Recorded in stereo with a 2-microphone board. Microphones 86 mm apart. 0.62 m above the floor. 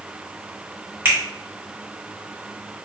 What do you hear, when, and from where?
1.1 s a finger snap: 30° right (ahead or behind), 1.6 m